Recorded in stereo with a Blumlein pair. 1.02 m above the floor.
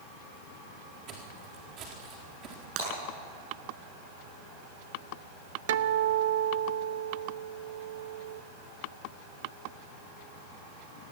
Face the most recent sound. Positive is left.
turn(degrees=-55)